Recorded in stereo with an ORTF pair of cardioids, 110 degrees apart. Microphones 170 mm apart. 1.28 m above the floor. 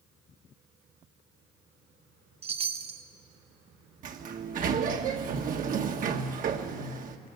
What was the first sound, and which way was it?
A chime, 35° right.